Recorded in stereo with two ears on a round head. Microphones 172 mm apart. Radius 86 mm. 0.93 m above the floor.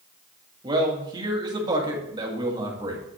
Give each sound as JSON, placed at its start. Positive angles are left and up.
{"t": 0.6, "sound": "a man speaking", "side_deg": -20, "distance_m": 1.7}